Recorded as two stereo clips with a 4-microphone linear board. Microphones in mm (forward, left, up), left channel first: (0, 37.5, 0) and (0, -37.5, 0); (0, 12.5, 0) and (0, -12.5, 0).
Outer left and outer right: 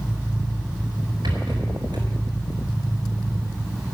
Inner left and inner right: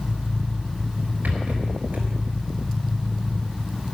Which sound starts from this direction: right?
A rattle, at 1.2 s.